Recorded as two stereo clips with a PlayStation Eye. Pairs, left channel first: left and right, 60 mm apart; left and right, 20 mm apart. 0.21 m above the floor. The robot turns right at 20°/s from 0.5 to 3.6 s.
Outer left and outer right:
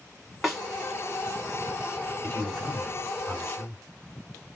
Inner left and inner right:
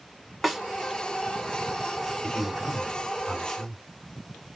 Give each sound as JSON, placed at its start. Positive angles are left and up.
{"t": 0.4, "sound": "a snare drum", "side_deg": -5, "distance_m": 1.0}
{"t": 2.2, "sound": "a man speaking", "side_deg": 30, "distance_m": 1.4}